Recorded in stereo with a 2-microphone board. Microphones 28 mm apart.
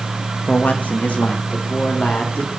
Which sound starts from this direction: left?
A man speaking, at 0.5 s.